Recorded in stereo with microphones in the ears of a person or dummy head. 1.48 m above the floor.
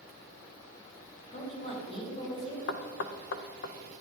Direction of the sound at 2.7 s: 65° left (ahead or behind).